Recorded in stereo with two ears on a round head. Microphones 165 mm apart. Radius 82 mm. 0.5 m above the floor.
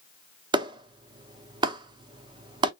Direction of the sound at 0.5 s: 25° right (ahead or behind).